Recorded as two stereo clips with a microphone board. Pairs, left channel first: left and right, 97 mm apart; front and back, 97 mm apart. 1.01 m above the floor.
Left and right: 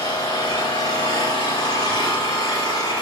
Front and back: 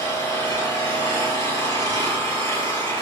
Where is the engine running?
60° left, 5.5 m.